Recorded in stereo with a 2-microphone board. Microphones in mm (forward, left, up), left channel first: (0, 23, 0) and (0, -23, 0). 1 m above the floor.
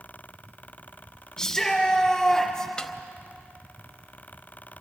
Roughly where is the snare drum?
Centre.